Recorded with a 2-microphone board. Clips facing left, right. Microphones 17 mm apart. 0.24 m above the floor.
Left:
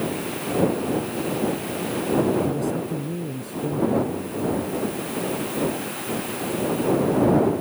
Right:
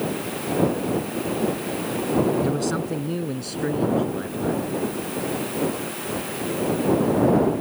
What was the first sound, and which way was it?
A man speaking, 55° right (ahead or behind).